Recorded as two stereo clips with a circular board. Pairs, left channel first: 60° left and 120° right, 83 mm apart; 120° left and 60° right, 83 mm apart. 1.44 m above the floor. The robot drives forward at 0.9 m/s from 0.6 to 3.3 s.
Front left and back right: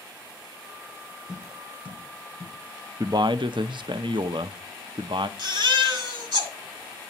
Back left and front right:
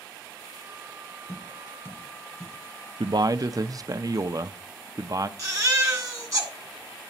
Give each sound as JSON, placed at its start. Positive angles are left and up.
{"t": 1.3, "sound": "tapping", "azimuth_deg": 170, "distance_m": 1.6}
{"t": 3.0, "sound": "a man speaking", "azimuth_deg": -75, "distance_m": 0.6}
{"t": 5.4, "sound": "a baby crying", "azimuth_deg": -110, "distance_m": 2.0}